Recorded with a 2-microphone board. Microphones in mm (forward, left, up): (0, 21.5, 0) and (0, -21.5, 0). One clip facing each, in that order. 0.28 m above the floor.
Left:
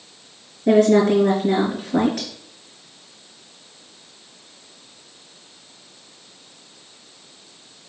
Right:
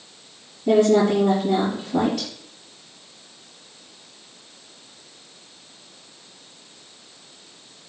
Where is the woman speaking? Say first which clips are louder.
Left 2 dB; 70° left (ahead or behind), 4 m.